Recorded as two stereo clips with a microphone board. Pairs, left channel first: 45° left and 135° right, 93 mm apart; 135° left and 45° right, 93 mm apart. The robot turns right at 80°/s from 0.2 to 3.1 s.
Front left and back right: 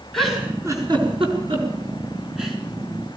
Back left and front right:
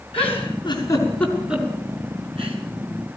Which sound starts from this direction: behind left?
A giggle, at 0.1 s.